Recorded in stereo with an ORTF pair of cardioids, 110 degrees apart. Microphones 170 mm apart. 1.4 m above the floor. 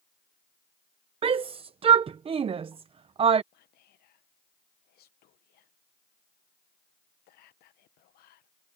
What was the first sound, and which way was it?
A shout, 35° right.